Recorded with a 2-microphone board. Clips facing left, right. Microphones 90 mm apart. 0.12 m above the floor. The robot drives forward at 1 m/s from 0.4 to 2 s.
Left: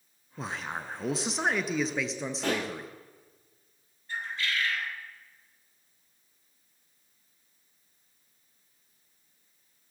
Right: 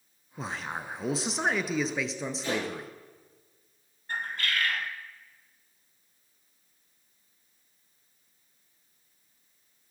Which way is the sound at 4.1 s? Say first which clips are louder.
Right 1 dB; 55° right (ahead or behind).